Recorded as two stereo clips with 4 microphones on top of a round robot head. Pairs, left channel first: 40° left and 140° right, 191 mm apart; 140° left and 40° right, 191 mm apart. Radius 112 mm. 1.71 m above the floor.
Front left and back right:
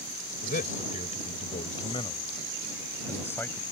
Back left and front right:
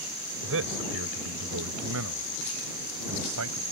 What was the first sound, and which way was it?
A man speaking, 10° right.